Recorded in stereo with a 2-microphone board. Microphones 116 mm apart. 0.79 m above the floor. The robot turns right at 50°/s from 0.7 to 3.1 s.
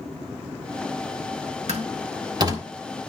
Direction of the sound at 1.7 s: 70° right (ahead or behind).